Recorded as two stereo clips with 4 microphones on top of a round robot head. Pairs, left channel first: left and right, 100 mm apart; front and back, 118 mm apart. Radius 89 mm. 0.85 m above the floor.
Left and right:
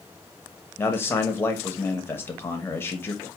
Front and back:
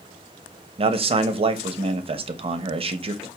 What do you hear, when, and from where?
0.8 s a man speaking: 155° left, 0.7 m